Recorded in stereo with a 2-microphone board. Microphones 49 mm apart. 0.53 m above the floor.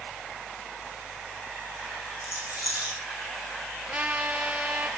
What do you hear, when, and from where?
2.2 s a rattle: 20° right (ahead or behind), 6 m
3.9 s a trumpet: 30° right (ahead or behind), 1.7 m